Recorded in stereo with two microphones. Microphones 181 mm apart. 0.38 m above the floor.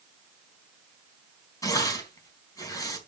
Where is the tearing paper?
20° left (ahead or behind), 3.5 m.